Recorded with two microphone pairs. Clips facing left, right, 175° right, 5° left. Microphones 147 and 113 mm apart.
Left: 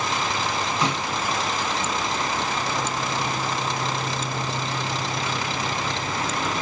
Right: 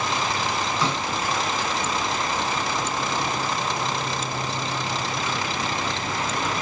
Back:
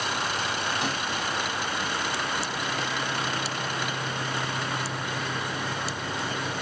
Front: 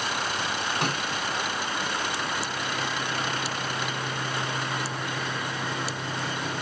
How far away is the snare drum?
About 1.2 m.